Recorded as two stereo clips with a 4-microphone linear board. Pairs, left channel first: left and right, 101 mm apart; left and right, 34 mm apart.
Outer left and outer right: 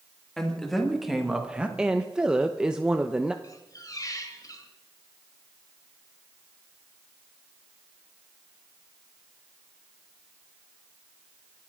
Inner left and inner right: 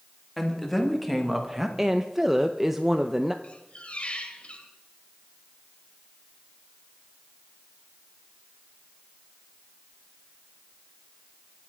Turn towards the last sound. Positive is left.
turn(degrees=35)  # may be behind; listen again after turning